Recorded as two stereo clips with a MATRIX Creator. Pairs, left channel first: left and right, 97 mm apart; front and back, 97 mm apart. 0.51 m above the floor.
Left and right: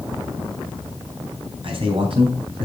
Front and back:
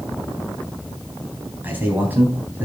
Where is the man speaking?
110° right, 3.5 m.